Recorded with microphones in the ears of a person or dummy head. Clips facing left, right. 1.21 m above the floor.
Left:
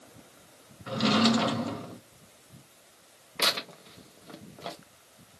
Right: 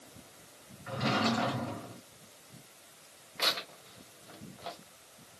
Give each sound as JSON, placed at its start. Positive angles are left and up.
{"t": 0.9, "sound": "a drawer", "side_deg": 60, "distance_m": 0.8}
{"t": 3.4, "sound": "tearing paper", "side_deg": 50, "distance_m": 0.7}